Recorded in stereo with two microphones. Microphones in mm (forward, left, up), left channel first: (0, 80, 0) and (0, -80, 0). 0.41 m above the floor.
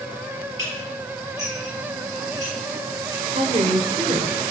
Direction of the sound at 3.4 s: 45° right (ahead or behind).